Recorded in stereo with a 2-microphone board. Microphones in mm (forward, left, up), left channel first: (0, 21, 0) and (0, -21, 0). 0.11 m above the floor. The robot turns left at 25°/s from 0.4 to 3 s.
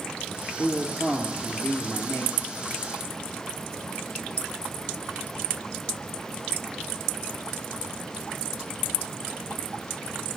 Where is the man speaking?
140° left, 1.7 m; by 2.4 s 95° left, 1.7 m.